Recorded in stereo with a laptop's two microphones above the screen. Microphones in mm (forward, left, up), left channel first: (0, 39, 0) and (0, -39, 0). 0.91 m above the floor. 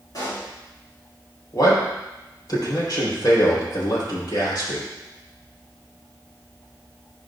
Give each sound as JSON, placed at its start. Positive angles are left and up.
{"t": 0.1, "sound": "a pop", "side_deg": 50, "distance_m": 3.5}
{"t": 1.5, "sound": "a man speaking", "side_deg": 55, "distance_m": 4.0}